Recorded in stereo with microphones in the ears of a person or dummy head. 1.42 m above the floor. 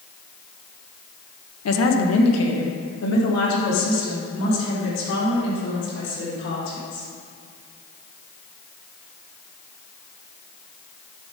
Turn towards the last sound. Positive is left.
turn(degrees=70)  # may be behind; listen again after turning